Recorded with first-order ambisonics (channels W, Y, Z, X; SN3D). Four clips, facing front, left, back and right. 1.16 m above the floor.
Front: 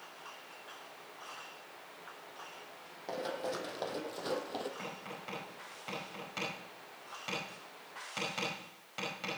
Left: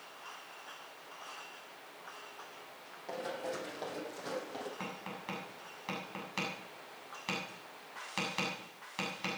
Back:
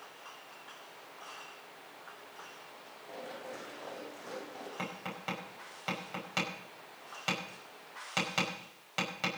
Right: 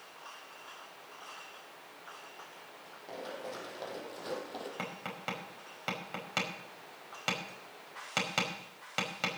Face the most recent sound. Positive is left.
turn(degrees=-115)